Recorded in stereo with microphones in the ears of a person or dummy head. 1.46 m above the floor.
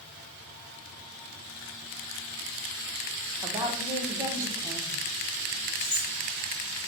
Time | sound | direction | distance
3.4 | a woman speaking | 15° right (ahead or behind) | 1.0 m
5.8 | cutlery clinking | 5° right (ahead or behind) | 1.5 m